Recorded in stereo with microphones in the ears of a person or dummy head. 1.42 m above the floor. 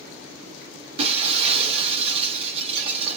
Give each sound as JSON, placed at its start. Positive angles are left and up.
{"t": 1.0, "sound": "breaking glass", "side_deg": -40, "distance_m": 0.9}